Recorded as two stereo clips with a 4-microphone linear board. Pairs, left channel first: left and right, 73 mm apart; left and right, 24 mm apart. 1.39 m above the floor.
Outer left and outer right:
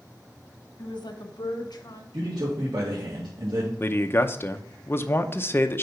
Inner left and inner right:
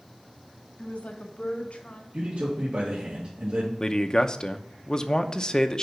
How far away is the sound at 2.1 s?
About 2 m.